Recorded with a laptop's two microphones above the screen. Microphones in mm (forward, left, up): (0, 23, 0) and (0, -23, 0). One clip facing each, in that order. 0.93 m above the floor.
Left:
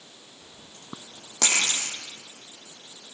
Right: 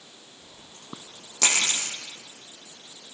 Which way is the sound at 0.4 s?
40° left (ahead or behind).